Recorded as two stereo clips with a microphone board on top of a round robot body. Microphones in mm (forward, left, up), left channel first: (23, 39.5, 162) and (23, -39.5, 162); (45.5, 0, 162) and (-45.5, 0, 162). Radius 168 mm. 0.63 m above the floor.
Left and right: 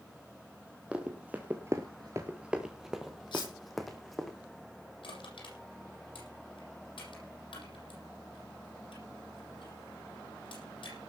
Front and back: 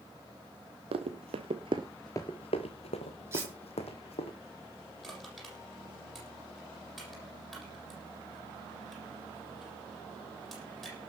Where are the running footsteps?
165° right, 1.5 m; by 4.3 s straight ahead, 2.5 m.